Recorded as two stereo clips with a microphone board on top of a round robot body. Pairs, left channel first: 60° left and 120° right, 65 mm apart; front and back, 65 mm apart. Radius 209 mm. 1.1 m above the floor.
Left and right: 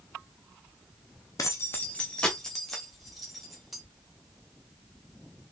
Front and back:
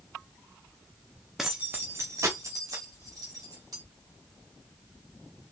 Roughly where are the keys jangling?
Left.